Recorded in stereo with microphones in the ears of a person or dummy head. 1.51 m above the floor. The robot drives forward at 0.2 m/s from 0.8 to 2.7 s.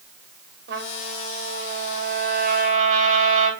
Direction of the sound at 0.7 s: 50° right (ahead or behind).